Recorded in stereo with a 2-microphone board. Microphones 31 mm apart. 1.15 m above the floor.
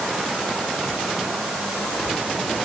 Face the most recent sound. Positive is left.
No sound to turn to.